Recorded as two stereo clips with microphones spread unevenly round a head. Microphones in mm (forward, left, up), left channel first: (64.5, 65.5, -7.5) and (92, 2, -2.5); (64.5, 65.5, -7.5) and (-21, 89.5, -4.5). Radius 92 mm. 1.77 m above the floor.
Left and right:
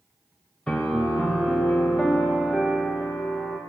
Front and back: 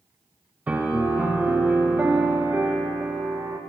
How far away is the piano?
About 0.6 m.